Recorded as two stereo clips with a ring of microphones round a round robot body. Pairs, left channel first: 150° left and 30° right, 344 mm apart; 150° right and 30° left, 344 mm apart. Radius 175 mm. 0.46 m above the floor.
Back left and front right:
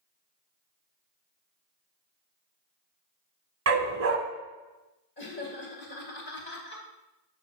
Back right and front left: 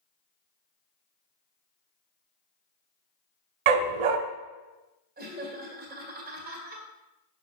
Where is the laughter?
95° left, 2 m.